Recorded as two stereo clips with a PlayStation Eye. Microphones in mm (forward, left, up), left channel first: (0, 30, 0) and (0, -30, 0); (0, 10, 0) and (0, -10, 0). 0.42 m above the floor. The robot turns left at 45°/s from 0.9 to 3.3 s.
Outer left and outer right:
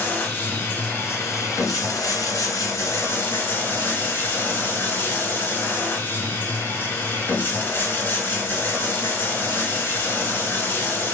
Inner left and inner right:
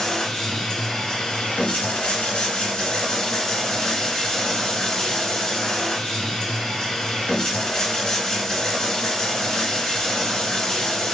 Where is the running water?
145° left, 1.4 m; by 11.2 s 35° left, 1.4 m.